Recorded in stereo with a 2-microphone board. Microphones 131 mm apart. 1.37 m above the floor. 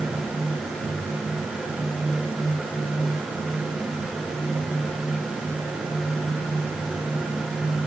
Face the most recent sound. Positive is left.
No sound to turn to.